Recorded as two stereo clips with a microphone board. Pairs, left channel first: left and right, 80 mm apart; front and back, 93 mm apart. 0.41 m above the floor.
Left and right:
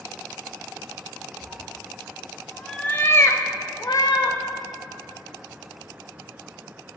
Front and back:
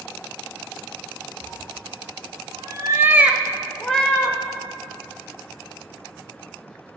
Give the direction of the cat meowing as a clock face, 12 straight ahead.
5 o'clock.